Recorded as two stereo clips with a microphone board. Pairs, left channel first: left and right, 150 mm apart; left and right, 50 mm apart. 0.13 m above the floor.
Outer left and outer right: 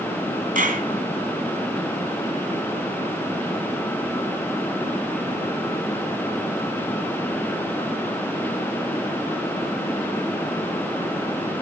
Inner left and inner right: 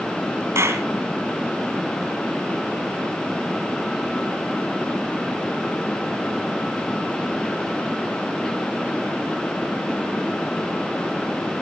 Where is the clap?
65° right (ahead or behind), 3.5 m.